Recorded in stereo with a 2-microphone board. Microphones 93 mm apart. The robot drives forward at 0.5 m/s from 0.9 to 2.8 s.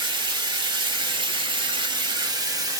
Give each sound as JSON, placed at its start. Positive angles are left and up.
{"t": 0.0, "sound": "running water", "side_deg": -55, "distance_m": 0.8}